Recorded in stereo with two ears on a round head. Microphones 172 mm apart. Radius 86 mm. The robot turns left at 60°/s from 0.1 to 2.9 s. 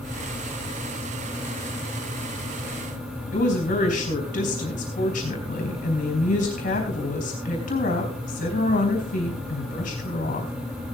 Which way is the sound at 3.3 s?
40° left (ahead or behind).